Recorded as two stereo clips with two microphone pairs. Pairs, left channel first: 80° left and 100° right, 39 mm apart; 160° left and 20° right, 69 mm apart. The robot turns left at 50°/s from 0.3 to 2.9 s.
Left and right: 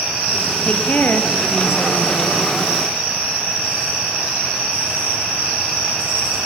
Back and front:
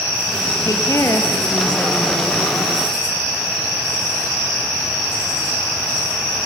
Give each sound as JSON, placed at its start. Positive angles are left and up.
{"t": 0.6, "sound": "a woman speaking", "azimuth_deg": 140, "distance_m": 2.5}